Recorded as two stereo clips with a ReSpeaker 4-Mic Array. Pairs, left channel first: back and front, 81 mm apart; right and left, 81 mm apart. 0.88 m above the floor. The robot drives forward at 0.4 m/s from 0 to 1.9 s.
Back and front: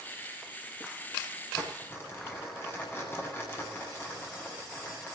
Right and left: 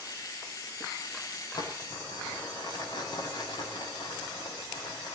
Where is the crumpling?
120° right, 7.5 m.